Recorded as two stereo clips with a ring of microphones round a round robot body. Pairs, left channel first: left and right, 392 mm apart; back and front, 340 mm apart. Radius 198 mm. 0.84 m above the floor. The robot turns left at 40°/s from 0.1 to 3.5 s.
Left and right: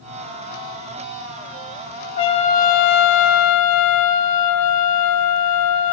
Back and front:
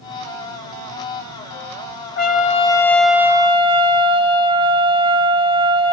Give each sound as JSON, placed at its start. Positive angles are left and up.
{"t": 2.2, "sound": "a trumpet", "azimuth_deg": 125, "distance_m": 0.9}